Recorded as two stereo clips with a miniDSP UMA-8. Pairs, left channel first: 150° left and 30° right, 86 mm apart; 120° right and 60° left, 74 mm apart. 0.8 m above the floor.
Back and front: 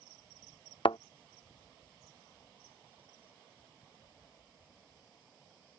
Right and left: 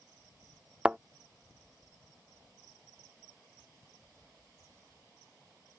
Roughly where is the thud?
Behind left.